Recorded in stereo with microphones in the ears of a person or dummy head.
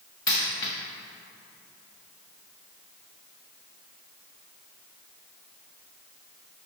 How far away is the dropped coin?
About 0.8 m.